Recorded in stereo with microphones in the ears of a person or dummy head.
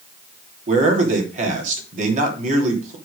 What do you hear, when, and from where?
0.7 s a man speaking: 45° right (ahead or behind), 3 m